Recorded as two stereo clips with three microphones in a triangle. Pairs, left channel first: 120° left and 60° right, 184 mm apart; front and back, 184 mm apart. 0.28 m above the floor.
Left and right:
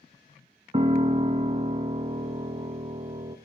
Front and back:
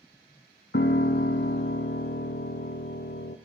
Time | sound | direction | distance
0.7 | a piano | straight ahead | 0.5 m